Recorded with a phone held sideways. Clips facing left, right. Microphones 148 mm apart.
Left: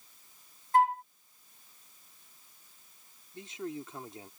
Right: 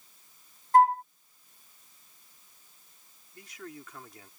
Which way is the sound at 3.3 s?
25° left (ahead or behind).